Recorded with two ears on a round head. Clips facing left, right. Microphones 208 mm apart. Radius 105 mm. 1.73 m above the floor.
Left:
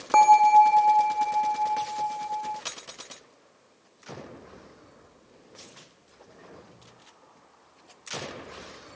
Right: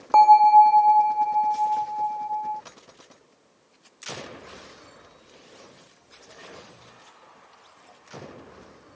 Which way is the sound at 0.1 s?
20° left (ahead or behind).